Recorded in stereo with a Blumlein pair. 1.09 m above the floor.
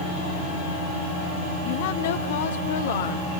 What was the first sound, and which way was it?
A woman speaking, 45° left.